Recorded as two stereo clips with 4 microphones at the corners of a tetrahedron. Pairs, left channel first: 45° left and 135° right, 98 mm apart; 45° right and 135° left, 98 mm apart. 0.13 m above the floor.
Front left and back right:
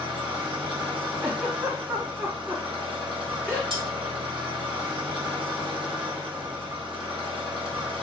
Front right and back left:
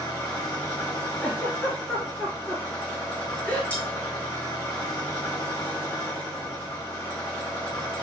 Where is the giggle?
100° right, 1.7 m.